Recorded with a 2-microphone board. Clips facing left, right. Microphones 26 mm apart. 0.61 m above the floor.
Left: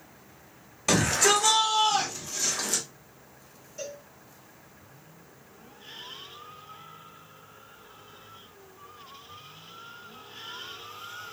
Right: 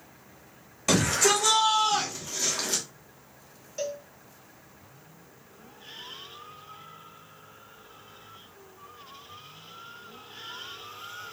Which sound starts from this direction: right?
A cowbell, at 3.8 s.